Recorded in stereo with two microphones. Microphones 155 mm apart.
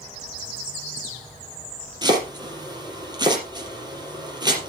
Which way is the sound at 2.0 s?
25° right (ahead or behind).